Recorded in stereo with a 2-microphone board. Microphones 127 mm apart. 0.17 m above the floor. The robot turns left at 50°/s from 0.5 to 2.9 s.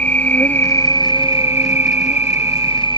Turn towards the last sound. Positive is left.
turn(degrees=45)